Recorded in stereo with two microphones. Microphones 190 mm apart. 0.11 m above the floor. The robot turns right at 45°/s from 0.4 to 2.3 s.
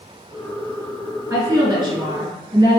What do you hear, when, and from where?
1.3 s a woman speaking: 15° right (ahead or behind), 1.1 m; by 2.8 s 25° right (ahead or behind), 1.1 m